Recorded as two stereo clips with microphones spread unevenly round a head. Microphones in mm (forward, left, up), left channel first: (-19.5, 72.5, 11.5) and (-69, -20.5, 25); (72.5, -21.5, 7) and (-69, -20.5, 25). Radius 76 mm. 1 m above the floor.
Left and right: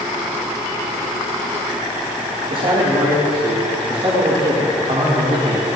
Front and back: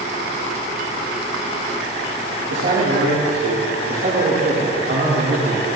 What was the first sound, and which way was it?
A man speaking, 160° right.